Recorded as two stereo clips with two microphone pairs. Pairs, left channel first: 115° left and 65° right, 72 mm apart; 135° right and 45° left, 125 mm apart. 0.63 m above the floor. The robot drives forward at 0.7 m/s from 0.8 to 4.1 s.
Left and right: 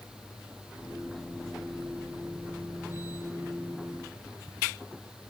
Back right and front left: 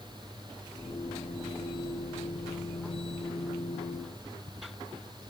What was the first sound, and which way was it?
Only background noise.